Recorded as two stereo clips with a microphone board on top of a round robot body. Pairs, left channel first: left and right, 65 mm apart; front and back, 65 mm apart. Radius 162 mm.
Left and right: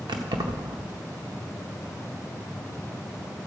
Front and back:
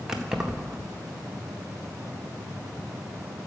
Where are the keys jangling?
100° right, 0.9 m.